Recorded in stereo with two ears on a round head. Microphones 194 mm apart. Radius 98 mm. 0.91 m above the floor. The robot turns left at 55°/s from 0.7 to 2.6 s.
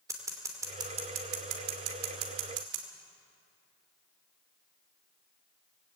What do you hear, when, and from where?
0.1 s scissors: 15° right (ahead or behind), 2.5 m; by 2.9 s 60° right (ahead or behind), 2.5 m